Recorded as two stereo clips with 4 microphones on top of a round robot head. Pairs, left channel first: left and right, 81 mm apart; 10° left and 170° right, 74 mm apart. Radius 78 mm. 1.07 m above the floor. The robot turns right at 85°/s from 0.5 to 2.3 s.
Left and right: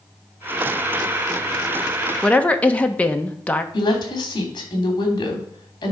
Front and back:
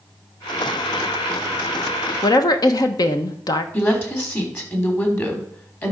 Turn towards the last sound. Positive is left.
turn(degrees=65)